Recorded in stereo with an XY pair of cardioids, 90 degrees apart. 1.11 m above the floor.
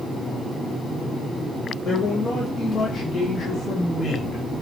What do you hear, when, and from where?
1.8 s a man speaking: 65° left, 3 m; by 4.4 s 45° left, 4.5 m